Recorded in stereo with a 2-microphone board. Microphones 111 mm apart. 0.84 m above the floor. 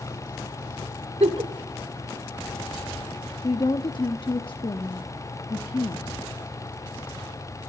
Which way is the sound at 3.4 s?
45° left (ahead or behind).